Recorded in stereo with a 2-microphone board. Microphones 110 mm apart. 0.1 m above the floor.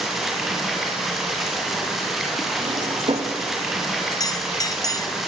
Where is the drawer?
50° right (ahead or behind), 3 m.